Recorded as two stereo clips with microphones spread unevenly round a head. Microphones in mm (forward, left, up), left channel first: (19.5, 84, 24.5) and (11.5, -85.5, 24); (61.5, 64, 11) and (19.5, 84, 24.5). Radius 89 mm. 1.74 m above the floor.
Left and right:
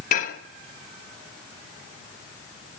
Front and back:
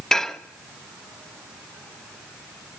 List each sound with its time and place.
0.1 s dishes clattering: 70° left, 1.3 m